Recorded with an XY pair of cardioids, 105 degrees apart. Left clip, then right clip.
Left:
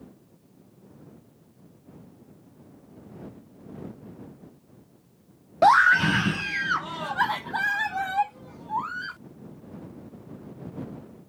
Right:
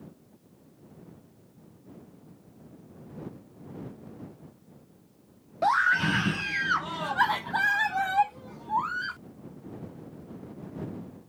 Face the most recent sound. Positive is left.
turn(degrees=-15)